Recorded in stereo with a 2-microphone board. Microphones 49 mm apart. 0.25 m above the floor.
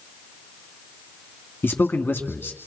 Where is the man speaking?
45° left (ahead or behind), 2.5 m.